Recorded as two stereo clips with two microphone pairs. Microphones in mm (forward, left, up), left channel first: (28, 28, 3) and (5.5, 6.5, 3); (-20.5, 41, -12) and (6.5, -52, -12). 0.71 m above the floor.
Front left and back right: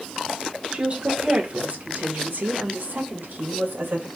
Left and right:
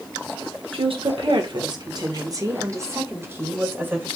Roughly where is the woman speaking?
Right.